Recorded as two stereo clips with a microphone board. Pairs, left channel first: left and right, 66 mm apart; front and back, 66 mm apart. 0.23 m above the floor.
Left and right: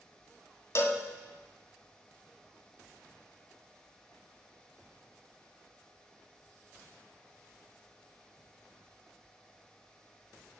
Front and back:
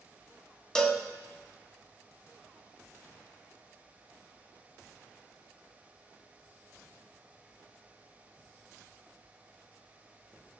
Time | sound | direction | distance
0.8 | a cowbell | 75° left | 1.0 m